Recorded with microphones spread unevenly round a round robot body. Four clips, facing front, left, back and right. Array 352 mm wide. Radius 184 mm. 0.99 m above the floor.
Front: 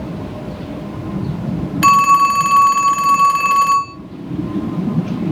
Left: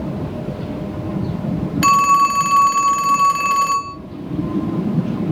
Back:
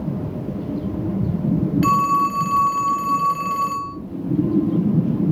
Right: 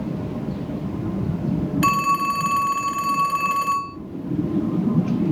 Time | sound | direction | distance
1.8 | a phone ringing | 25° left | 3 m